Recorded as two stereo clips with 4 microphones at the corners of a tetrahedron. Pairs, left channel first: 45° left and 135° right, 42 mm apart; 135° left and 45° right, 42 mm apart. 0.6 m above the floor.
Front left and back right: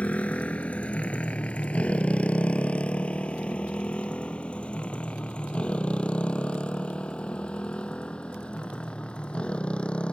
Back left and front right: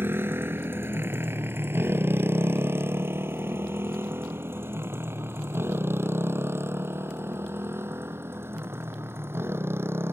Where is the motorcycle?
10° right; by 10.1 s 20° right.